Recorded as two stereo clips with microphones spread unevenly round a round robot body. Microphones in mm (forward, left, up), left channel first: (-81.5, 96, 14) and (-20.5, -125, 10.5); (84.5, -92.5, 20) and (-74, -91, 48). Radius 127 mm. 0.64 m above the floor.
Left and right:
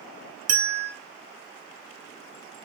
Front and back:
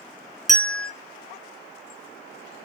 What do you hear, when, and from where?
0.5 s a bell: 95° right, 1.6 m